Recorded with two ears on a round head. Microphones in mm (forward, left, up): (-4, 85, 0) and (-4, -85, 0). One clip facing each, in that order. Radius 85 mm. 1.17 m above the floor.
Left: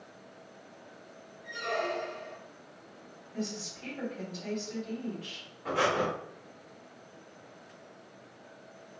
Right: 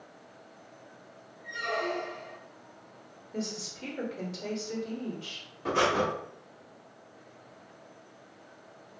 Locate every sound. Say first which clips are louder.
1.4 s a squeak: even; 25° left (ahead or behind), 0.9 m
3.3 s a woman speaking: right 1 dB; 55° right (ahead or behind), 1.6 m
5.7 s breathing: right 2 dB; 55° right (ahead or behind), 0.7 m